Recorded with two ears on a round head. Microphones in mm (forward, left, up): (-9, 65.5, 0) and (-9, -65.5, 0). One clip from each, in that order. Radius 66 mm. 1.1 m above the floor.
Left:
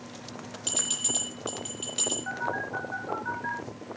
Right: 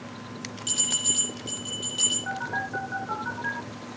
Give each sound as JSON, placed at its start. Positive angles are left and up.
{"t": 0.7, "sound": "a bell", "side_deg": 25, "distance_m": 9.5}
{"t": 2.3, "sound": "a phone buzzing", "side_deg": -5, "distance_m": 3.0}